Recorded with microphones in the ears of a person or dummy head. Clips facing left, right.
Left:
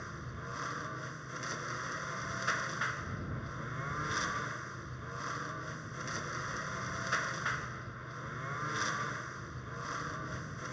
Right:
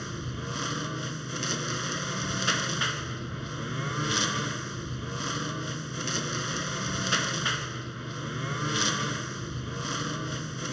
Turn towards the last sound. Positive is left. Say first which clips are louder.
# right 10 dB
turn(degrees=-45)  # may be behind; listen again after turning